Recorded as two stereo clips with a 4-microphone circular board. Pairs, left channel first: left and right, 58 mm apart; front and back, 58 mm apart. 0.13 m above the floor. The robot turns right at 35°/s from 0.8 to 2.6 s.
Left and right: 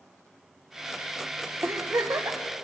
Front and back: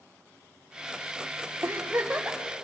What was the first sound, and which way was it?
A giggle, 130° right.